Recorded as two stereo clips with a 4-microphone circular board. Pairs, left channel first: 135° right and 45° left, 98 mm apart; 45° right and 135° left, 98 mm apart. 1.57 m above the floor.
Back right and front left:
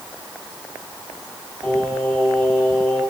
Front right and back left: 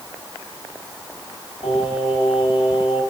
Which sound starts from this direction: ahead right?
Singing, at 1.6 s.